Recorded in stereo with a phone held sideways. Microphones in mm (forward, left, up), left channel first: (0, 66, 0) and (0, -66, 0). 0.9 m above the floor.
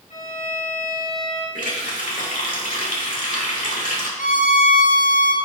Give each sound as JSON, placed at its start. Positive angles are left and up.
{"t": 0.1, "sound": "a violin", "side_deg": 80, "distance_m": 4.0}
{"t": 1.6, "sound": "a running tap", "side_deg": 85, "distance_m": 1.8}
{"t": 4.2, "sound": "a violin", "side_deg": 75, "distance_m": 0.9}